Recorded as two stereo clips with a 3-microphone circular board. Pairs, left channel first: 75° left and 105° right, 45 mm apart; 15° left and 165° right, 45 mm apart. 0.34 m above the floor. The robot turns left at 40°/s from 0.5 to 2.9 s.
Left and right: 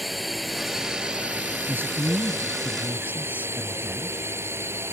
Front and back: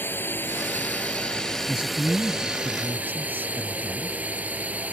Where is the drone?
15° right; by 4.9 s 115° right.